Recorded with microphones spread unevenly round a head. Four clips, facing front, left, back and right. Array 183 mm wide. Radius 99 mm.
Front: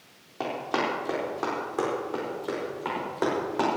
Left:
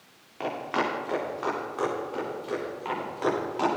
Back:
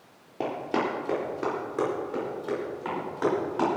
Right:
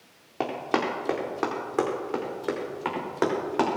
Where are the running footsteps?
120° right, 4 m; by 3.7 s 85° right, 6 m.